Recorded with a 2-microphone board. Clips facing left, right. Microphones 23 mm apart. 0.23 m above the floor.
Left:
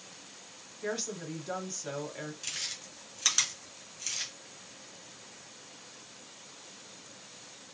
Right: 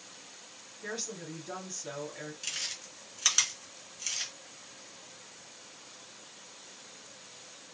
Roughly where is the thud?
I don't hear a thud.